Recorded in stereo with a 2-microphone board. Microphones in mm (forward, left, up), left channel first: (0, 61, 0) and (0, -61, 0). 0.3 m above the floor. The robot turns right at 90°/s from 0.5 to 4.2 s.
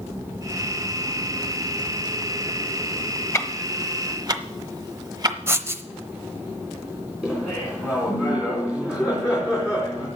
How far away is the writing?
About 0.8 m.